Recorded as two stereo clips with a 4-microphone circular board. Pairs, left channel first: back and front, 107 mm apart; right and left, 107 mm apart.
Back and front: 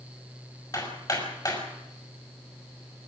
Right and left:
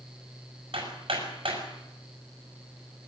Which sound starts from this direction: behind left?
Hammering, at 0.7 s.